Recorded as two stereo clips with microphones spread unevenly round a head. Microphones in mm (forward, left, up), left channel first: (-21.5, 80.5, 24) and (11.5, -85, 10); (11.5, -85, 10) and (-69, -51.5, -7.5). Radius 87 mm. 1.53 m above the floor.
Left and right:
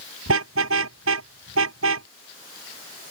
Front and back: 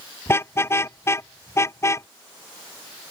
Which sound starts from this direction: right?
A car horn, at 0.3 s.